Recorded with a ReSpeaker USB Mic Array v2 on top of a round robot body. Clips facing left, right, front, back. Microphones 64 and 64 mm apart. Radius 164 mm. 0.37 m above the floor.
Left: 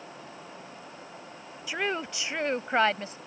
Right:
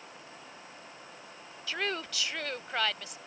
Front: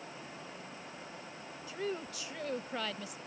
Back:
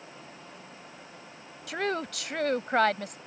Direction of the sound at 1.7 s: 165° left.